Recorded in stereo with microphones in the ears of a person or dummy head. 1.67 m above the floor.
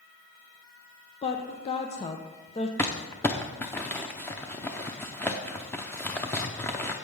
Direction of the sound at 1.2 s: 30° left (ahead or behind).